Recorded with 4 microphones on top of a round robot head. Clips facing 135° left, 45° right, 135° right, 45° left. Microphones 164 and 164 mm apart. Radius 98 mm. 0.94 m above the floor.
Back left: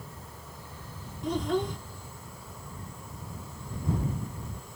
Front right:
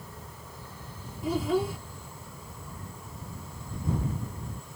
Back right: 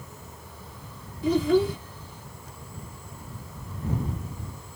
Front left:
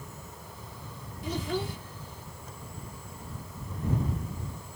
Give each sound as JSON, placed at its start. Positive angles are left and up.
{"t": 1.2, "sound": "a child speaking", "azimuth_deg": -130}